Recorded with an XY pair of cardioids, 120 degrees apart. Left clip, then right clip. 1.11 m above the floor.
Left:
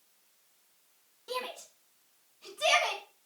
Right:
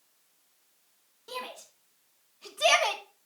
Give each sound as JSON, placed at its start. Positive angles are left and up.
{"t": 1.3, "sound": "a shout", "azimuth_deg": 0, "distance_m": 2.0}